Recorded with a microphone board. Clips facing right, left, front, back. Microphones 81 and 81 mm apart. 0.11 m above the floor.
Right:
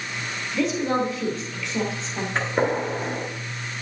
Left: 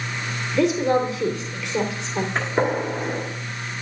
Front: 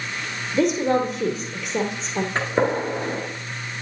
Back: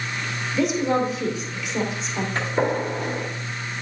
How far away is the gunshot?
About 1.8 m.